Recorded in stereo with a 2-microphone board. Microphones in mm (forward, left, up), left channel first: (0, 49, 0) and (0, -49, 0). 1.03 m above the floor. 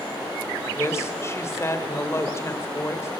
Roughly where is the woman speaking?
Left.